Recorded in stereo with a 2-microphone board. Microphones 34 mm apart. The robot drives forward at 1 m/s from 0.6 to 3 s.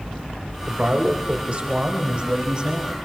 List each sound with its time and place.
0.7 s a man speaking: 45° right (ahead or behind), 2.5 m; by 3.0 s 25° right (ahead or behind), 4.5 m